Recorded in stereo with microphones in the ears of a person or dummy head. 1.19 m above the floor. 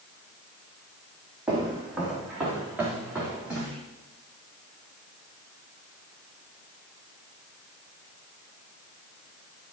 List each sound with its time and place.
1.5 s footsteps: centre (ahead or behind), 3 m; by 3.8 s 5° right (ahead or behind), 4.5 m